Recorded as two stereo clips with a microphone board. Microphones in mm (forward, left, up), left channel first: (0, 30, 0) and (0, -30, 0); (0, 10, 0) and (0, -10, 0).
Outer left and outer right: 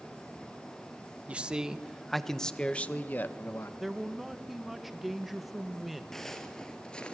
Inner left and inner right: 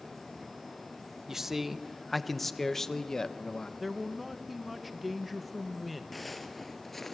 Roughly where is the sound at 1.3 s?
Centre.